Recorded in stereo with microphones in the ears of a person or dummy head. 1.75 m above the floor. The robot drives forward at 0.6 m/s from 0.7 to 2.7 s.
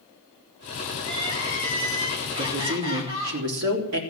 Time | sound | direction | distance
1.0 | crying | 30° right (ahead or behind) | 5 m
2.4 | a woman speaking | 80° right | 4 m